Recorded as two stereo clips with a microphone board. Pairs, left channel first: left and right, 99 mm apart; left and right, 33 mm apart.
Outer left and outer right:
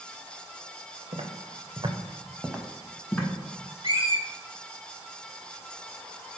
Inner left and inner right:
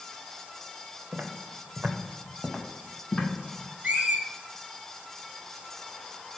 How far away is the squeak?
About 0.7 m.